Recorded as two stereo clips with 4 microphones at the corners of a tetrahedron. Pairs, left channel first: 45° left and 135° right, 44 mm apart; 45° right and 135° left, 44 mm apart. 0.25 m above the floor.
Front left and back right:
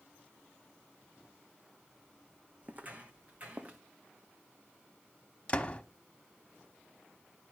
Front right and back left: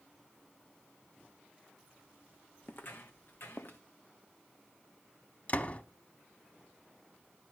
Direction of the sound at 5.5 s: 10° right.